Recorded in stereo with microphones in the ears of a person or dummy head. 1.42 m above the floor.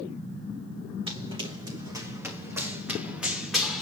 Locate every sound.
1.1 s running footsteps: 30° right (ahead or behind), 3.5 m; by 3.8 s centre (ahead or behind), 3.5 m